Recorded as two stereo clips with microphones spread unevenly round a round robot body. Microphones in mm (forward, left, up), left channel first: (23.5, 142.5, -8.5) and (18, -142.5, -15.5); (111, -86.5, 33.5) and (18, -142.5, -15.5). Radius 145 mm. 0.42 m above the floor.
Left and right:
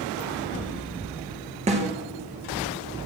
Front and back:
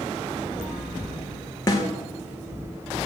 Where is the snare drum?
25° right, 2.5 m.